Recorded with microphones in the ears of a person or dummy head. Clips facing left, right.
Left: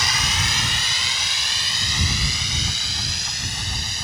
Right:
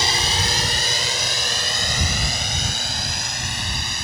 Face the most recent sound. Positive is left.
turn(degrees=-55)  # may be behind; listen again after turning